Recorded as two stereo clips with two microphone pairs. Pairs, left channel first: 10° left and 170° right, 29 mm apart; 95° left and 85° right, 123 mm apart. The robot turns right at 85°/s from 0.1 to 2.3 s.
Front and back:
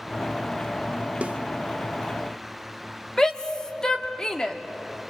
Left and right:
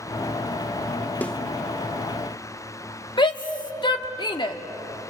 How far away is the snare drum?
About 0.9 m.